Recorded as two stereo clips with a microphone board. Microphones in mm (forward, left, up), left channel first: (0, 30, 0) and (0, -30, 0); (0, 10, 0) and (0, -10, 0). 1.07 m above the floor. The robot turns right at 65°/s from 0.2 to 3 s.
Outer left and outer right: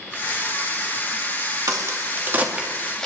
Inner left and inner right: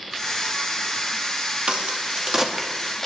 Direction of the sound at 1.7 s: 70° right (ahead or behind).